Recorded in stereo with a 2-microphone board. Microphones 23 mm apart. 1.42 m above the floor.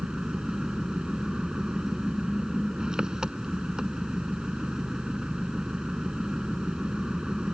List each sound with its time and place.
0.0 s an engine running: 35° right (ahead or behind)